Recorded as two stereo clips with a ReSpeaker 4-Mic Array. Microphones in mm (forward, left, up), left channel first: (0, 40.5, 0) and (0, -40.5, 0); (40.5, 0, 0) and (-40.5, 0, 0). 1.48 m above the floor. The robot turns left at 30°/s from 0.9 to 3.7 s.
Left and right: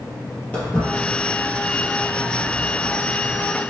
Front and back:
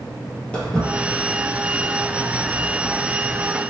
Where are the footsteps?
50° left, 1.5 m; by 3.5 s 155° left, 1.9 m.